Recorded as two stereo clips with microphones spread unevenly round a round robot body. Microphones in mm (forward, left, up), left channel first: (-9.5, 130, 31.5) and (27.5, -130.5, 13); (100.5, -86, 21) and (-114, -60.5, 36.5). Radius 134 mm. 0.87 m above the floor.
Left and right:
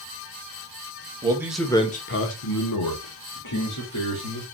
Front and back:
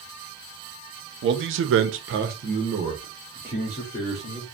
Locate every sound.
1.2 s a man speaking: 155° right, 0.9 m; by 4.4 s 80° left, 2 m